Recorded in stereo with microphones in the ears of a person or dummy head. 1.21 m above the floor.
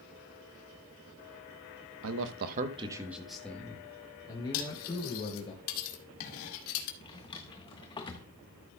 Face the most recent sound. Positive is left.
turn(degrees=20)  # may be behind; listen again after turning